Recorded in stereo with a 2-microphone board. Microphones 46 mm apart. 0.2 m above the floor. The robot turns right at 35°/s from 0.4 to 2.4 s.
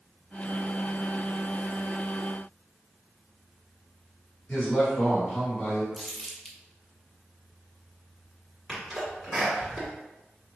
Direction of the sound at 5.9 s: 10° left (ahead or behind).